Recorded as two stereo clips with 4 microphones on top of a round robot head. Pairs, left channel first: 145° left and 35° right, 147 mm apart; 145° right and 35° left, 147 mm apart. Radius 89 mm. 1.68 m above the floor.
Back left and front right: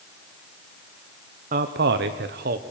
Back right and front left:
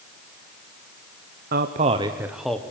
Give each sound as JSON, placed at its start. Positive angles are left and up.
{"t": 1.5, "sound": "a man speaking", "azimuth_deg": 5, "distance_m": 1.1}